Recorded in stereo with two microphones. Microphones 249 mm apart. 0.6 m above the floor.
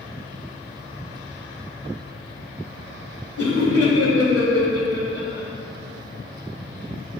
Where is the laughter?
70° left (ahead or behind), 2 m; by 5.5 s 55° left (ahead or behind), 3 m.